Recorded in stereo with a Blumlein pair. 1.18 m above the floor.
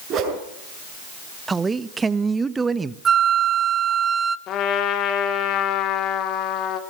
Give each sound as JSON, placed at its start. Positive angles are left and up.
{"t": 0.1, "sound": "a whoosh", "azimuth_deg": -30, "distance_m": 7.0}
{"t": 1.5, "sound": "a man speaking", "azimuth_deg": -15, "distance_m": 1.0}
{"t": 3.0, "sound": "a flute", "azimuth_deg": -20, "distance_m": 0.9}
{"t": 4.5, "sound": "a trumpet", "azimuth_deg": 35, "distance_m": 2.5}